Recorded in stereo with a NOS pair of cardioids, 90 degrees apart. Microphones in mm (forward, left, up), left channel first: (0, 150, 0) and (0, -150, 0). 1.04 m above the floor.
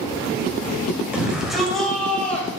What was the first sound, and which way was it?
A shout, 5° right.